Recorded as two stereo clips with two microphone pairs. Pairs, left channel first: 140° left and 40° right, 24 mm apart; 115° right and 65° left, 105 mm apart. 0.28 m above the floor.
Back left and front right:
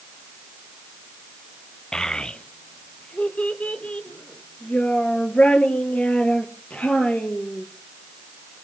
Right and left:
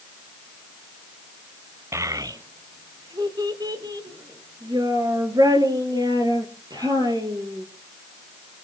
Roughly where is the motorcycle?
No motorcycle in this recording.